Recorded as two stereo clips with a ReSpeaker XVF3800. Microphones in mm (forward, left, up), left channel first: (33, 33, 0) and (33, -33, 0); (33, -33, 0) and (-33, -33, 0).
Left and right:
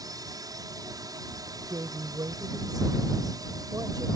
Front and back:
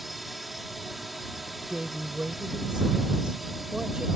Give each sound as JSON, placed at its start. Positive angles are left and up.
{"t": 0.0, "sound": "a drone", "azimuth_deg": -90}
{"t": 1.7, "sound": "a woman speaking", "azimuth_deg": -105}